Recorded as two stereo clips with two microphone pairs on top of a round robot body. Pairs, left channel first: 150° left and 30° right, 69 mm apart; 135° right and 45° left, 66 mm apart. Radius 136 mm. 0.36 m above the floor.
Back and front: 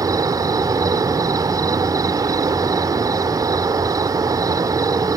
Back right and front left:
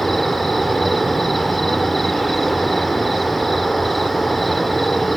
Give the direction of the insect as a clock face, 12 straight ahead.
2 o'clock.